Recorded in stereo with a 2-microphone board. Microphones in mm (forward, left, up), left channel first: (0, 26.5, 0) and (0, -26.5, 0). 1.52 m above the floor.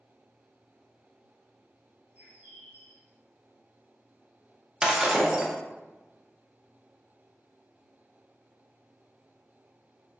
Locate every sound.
2.1 s a bird: 30° right (ahead or behind), 1.5 m
4.8 s breaking glass: 15° right (ahead or behind), 0.6 m